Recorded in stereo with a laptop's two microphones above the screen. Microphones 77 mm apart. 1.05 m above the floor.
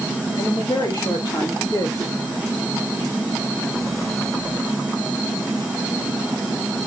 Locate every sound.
0.4 s a woman speaking: 65° left (ahead or behind), 2.0 m